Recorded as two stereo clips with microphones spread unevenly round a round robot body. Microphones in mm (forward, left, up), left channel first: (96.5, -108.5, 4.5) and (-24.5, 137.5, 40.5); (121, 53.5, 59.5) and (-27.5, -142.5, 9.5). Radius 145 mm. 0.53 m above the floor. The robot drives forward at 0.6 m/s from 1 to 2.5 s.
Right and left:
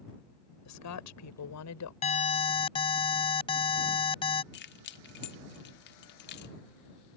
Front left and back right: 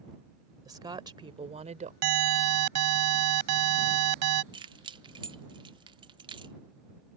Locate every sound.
0.7 s a woman speaking: 55° right; by 1.9 s 75° right
2.0 s an alarm: 130° right; by 4.4 s 135° right
4.5 s keys jangling: 75° right